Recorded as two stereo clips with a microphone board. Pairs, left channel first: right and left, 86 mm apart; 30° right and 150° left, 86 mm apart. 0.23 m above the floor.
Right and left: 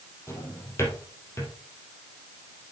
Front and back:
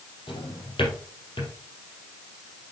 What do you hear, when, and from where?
0.3 s a drawer: 35° right, 3.5 m